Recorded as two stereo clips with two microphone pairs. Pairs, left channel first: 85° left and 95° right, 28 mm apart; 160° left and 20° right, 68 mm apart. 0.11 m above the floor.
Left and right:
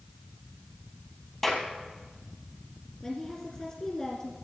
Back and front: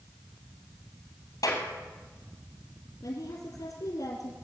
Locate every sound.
1.4 s a clap: 175° left, 3 m
3.0 s a woman speaking: 165° left, 2.5 m